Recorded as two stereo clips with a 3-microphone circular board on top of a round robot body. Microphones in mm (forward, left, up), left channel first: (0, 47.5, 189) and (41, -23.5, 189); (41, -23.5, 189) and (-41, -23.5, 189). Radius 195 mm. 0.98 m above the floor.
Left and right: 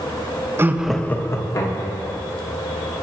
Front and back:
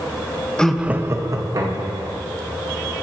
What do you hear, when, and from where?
0.6 s laughter: 70° right, 0.7 m; by 2.2 s 145° left, 1.5 m